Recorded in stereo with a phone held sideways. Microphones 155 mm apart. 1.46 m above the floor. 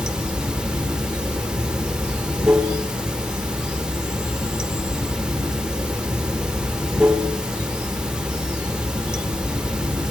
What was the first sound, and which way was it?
Running water, 5° right (ahead or behind).